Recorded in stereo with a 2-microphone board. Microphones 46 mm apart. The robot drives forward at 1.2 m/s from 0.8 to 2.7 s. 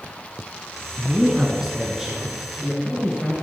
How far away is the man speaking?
About 1.1 m.